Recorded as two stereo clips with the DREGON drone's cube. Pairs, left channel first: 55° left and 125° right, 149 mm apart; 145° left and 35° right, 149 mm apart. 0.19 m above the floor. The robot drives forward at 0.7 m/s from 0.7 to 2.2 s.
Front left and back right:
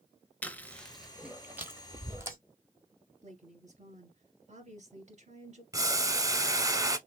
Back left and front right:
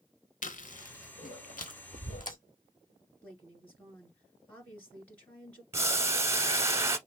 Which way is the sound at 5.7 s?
85° right.